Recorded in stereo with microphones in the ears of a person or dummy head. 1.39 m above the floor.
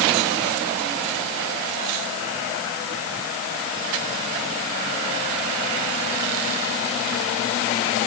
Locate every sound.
Only background noise.